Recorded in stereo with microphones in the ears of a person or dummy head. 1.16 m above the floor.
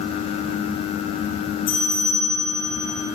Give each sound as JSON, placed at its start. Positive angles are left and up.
{"t": 1.7, "sound": "a bell", "side_deg": 75, "distance_m": 2.0}